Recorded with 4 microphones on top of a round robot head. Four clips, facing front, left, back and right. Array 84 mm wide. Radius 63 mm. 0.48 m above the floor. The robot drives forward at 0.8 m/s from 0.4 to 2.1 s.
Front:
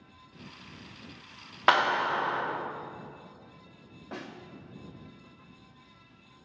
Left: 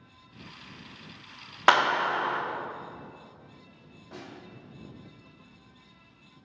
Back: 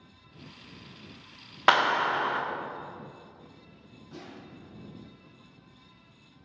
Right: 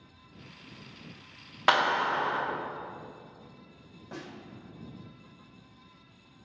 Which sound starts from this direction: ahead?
A snare drum, at 4.1 s.